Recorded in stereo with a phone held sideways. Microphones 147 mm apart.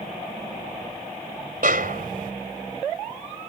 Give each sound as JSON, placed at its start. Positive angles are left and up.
{"t": 1.6, "sound": "a snare drum", "side_deg": -75}